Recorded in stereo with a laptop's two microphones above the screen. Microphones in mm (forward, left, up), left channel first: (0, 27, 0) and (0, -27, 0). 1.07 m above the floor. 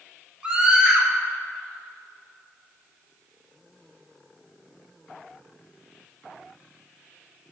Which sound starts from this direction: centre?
A scream, at 0.4 s.